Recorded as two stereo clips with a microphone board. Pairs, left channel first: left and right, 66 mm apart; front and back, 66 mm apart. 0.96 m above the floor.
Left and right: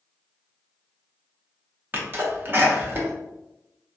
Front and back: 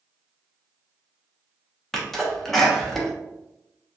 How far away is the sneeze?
About 0.7 m.